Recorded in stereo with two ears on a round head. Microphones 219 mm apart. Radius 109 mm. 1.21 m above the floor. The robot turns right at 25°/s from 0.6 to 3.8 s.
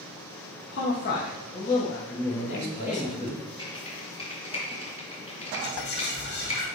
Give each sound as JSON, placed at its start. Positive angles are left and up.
{"t": 0.7, "sound": "a man speaking", "azimuth_deg": 130, "distance_m": 1.4}
{"t": 2.3, "sound": "a man speaking", "azimuth_deg": 130, "distance_m": 2.0}
{"t": 3.6, "sound": "typing on a keyboard", "side_deg": 20, "distance_m": 3.0}
{"t": 5.6, "sound": "whispering", "side_deg": 45, "distance_m": 1.9}